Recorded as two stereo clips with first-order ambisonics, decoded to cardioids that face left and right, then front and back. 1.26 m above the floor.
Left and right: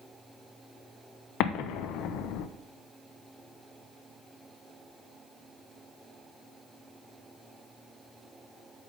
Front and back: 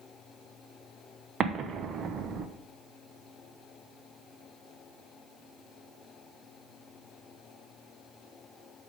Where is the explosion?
120° left, 0.6 m.